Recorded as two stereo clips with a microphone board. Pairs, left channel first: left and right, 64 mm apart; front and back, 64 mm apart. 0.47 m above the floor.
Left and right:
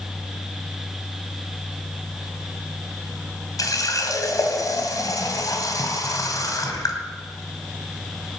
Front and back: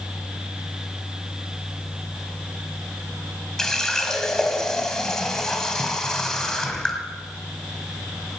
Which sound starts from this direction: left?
A running tap, at 3.6 s.